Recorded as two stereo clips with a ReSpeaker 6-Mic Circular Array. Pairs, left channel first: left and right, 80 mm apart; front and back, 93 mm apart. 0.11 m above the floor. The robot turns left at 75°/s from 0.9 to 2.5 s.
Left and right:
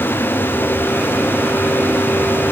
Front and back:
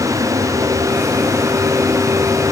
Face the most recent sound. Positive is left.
No sound to turn to.